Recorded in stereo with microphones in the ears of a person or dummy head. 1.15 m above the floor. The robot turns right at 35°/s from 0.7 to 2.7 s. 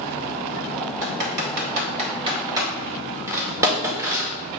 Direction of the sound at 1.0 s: 70° right (ahead or behind).